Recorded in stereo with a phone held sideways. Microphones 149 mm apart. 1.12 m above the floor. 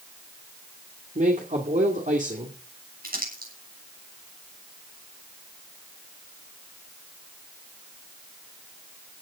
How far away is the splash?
No splash in this recording.